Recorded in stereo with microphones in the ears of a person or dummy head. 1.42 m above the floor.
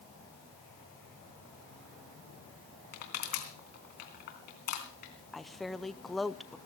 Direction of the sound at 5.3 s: 5° left (ahead or behind).